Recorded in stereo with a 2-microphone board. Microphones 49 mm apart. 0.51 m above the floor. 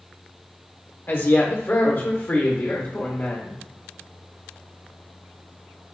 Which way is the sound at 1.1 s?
50° left (ahead or behind).